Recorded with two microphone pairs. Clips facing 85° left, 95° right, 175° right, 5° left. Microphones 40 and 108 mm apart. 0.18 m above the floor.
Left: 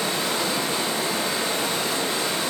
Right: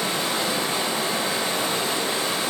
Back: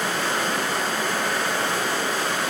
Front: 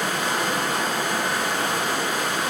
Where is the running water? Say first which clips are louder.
Even, even; 60° right, 1.3 m.